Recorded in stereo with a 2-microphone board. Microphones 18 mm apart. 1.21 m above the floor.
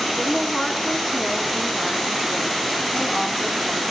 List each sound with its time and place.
0.2 s a woman speaking: 30° left (ahead or behind), 3 m